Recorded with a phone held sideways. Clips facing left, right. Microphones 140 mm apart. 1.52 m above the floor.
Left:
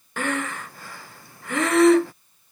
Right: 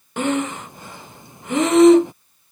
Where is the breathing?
20° right (ahead or behind).